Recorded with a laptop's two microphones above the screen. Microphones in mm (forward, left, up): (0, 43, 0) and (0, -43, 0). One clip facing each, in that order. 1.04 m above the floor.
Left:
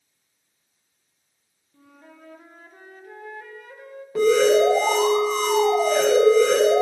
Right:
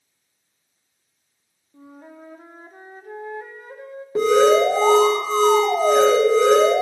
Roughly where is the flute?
Right.